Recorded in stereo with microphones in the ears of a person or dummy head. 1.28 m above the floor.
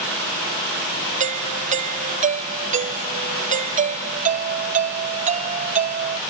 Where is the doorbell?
35° right (ahead or behind).